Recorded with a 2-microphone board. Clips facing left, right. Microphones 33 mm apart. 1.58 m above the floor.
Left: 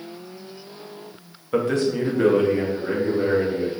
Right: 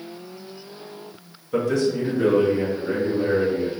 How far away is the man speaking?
About 0.7 m.